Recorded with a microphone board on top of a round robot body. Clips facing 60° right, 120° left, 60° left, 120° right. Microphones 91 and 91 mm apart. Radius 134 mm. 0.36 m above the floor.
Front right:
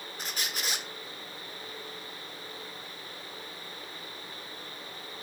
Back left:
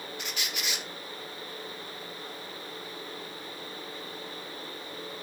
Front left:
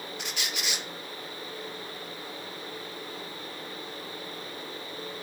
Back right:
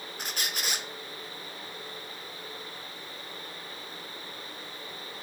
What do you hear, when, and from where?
0.2 s a squeak: 95° right, 0.6 m